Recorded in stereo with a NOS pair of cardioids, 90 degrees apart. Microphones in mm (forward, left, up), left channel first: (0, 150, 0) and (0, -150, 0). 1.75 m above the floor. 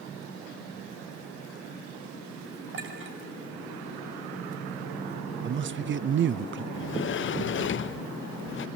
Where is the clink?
40° right, 6 m.